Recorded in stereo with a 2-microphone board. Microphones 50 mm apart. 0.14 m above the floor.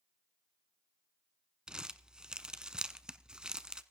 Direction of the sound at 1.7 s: 15° right (ahead or behind).